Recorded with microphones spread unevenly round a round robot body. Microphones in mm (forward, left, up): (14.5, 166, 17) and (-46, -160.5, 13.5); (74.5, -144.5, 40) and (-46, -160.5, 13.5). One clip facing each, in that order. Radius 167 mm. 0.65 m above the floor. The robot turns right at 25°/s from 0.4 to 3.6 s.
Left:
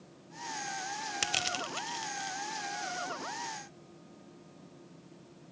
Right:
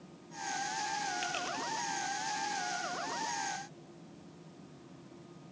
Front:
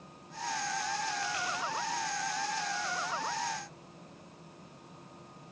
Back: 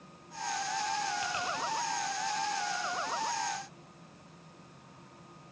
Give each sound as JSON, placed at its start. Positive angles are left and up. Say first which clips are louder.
{"t": 1.2, "sound": "crushing", "louder": "even, back 1 dB", "azimuth_deg": 100, "distance_m": 1.1}